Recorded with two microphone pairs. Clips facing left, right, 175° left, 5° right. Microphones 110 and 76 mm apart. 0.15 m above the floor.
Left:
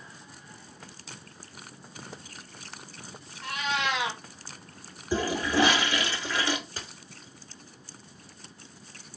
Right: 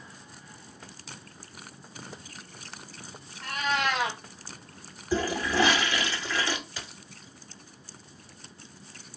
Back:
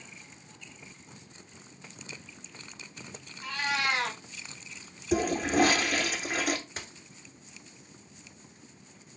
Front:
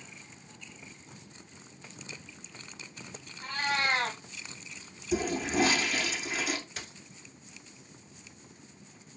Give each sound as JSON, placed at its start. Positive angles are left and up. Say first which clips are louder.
{"t": 3.4, "sound": "a cat meowing", "louder": "right 2 dB, even", "azimuth_deg": -50, "distance_m": 0.8}
{"t": 5.1, "sound": "a toilet flushing", "louder": "even, back 3 dB", "azimuth_deg": 160, "distance_m": 0.9}
{"t": 6.8, "sound": "a dropped coin", "louder": "even, back 1 dB", "azimuth_deg": 125, "distance_m": 0.8}